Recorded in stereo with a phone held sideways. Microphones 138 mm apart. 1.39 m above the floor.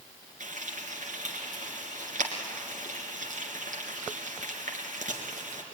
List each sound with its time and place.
0.4 s frying: 70° right (ahead or behind), 3 m